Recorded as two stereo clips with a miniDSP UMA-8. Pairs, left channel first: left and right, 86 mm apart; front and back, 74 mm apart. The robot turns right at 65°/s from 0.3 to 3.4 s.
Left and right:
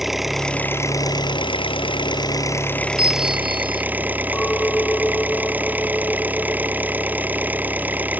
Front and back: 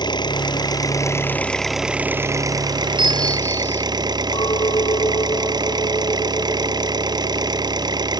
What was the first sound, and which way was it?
An engine running, straight ahead.